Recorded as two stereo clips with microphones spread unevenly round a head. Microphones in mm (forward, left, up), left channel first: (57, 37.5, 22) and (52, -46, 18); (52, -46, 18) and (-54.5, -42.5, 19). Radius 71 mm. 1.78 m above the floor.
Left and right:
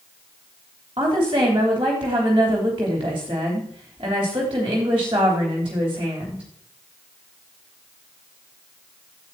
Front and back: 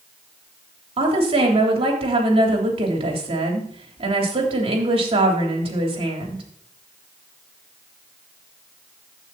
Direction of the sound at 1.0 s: 155° right.